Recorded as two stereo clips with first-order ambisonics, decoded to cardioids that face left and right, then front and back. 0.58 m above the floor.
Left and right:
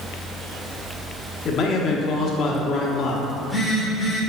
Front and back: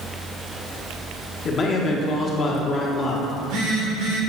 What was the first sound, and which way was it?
A man speaking, 55° left.